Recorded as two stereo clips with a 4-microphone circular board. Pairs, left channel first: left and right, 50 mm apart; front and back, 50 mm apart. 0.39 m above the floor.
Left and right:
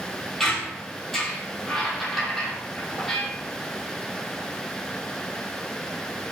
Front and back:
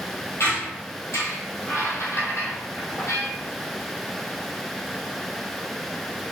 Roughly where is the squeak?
Ahead.